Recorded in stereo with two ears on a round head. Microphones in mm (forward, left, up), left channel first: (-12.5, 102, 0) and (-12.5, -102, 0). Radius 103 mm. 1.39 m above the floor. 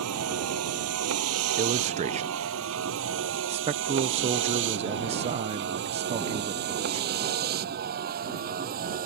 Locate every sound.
0.0 s a vehicle: 70° right (ahead or behind); by 9.1 s 40° right (ahead or behind)
1.6 s a man speaking: 30° right (ahead or behind)
3.5 s a man speaking: 25° right (ahead or behind)